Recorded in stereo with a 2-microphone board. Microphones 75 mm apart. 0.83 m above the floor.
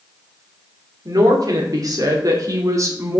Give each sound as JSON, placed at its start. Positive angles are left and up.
{"t": 1.1, "sound": "a woman speaking", "side_deg": -60, "distance_m": 3.0}